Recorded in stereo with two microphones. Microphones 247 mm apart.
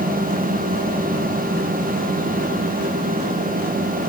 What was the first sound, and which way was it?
Only background noise.